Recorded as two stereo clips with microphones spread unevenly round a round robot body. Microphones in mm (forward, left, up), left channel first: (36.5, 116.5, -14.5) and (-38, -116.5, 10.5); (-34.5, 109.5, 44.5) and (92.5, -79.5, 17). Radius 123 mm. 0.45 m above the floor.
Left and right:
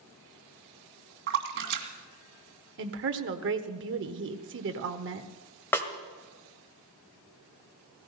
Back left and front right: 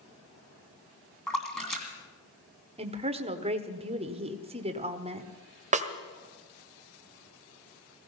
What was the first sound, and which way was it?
A splash, 150° right.